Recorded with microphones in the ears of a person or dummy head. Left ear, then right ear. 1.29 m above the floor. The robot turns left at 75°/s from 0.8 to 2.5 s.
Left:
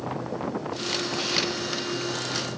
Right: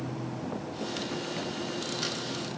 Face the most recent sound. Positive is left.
No sound to turn to.